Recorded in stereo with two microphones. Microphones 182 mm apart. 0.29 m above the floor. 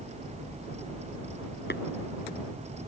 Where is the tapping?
75° left (ahead or behind).